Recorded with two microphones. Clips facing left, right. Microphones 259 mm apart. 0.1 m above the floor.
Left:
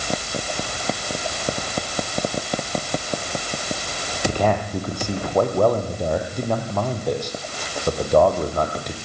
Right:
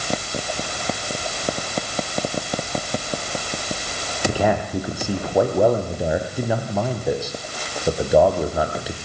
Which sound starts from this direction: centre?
A man speaking, at 4.3 s.